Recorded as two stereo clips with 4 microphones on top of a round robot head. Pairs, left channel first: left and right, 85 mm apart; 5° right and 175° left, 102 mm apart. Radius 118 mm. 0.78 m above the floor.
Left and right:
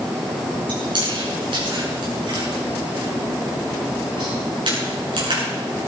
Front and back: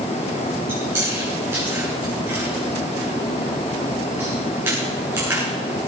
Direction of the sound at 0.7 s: 115° right.